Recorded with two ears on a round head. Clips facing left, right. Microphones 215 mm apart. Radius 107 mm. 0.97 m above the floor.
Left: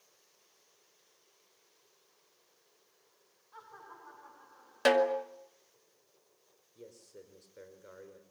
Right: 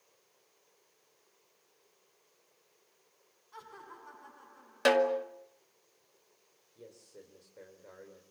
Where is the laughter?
40° right (ahead or behind), 8.5 m.